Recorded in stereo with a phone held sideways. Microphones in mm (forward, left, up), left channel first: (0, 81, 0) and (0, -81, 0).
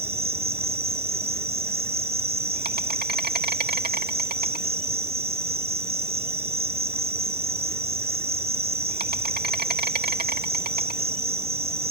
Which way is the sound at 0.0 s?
75° right (ahead or behind).